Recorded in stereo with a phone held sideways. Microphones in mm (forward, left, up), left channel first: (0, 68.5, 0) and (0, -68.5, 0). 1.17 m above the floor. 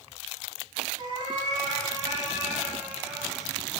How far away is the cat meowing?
About 4 m.